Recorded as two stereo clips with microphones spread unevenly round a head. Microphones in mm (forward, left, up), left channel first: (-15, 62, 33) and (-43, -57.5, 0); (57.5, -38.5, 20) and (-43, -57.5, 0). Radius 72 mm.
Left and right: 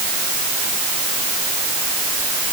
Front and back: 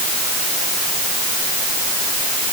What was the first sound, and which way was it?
Only background noise.